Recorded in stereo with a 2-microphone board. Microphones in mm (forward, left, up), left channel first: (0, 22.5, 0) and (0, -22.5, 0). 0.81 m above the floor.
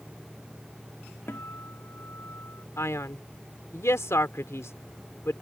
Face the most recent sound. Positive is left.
turn(degrees=75)  # may be behind; listen again after turning